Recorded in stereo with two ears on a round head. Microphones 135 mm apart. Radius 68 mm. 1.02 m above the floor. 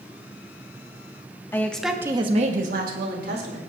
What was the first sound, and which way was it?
A woman speaking, 15° left (ahead or behind).